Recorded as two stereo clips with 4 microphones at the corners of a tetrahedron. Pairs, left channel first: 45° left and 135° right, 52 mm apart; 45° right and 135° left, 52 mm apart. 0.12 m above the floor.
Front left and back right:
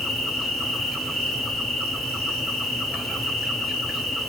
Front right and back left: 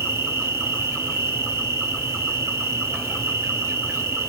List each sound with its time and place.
0.0 s an insect: 135° left, 1.1 m